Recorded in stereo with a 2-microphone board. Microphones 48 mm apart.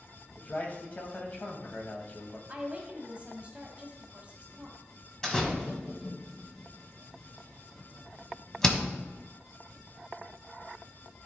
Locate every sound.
0.4 s a man speaking: 35° left (ahead or behind), 1.4 m
2.5 s a woman speaking: 30° right (ahead or behind), 1.8 m
5.2 s a door slam: 15° left (ahead or behind), 1.5 m